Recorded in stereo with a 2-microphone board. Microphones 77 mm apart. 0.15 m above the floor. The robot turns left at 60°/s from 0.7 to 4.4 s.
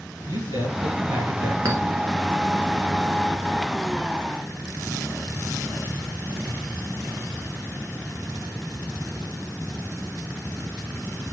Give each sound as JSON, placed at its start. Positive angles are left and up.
{"t": 0.3, "sound": "a man speaking", "azimuth_deg": -100, "distance_m": 2.5}
{"t": 1.6, "sound": "a clink", "side_deg": -45, "distance_m": 1.5}